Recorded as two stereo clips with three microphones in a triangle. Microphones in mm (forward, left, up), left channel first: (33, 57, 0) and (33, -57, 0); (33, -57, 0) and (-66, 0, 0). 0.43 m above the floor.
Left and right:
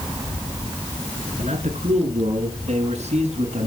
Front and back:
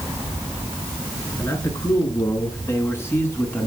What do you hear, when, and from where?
1.4 s a man speaking: 90° right, 5.5 m; by 3.7 s 105° right, 4 m